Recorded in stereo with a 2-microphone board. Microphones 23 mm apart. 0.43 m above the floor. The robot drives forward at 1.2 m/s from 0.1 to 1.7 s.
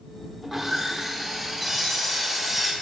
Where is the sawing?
15° right (ahead or behind), 1.1 m; by 2.7 s 10° right (ahead or behind), 1.6 m.